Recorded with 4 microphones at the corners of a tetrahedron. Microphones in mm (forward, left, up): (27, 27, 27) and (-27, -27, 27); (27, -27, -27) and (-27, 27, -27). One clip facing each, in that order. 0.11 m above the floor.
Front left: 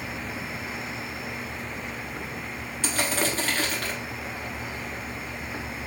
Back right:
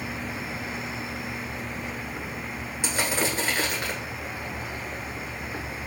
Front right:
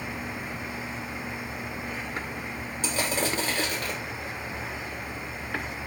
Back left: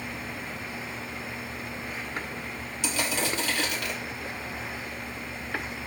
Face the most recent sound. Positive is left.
turn(degrees=-70)